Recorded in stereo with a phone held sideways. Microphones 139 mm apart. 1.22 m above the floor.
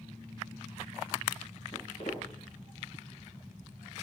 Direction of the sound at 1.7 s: 50° left (ahead or behind).